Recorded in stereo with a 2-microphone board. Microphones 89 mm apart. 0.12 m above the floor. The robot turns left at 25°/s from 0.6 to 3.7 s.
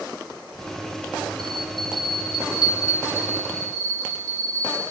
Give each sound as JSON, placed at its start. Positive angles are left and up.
{"t": 1.4, "sound": "a bell", "azimuth_deg": 75, "distance_m": 8.5}